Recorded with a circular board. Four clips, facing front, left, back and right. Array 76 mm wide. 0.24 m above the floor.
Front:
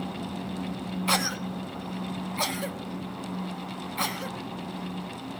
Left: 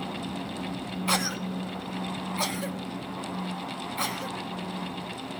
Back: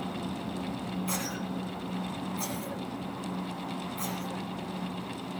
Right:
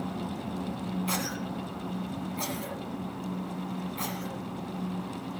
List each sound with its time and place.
1.1 s a cough: 30° left, 1.7 m